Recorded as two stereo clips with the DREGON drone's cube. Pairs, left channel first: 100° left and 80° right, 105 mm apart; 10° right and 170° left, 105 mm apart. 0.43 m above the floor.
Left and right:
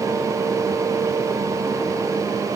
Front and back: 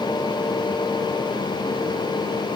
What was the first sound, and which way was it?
Only background noise.